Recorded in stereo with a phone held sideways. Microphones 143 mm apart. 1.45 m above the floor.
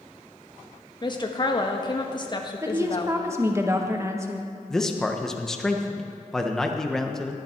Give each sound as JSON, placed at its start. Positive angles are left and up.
{"t": 1.0, "sound": "a woman speaking", "side_deg": 30, "distance_m": 1.4}
{"t": 2.6, "sound": "a woman speaking", "side_deg": -20, "distance_m": 1.5}
{"t": 4.7, "sound": "a man speaking", "side_deg": 5, "distance_m": 1.2}